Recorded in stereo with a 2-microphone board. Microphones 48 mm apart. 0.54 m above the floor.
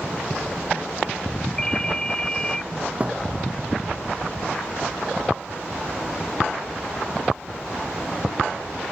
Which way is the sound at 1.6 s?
15° left (ahead or behind).